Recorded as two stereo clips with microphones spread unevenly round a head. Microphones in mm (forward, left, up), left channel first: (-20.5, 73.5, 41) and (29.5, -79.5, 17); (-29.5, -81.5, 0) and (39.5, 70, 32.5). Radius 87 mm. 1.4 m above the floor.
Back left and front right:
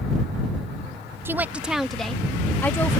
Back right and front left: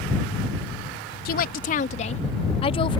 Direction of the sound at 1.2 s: 150° right.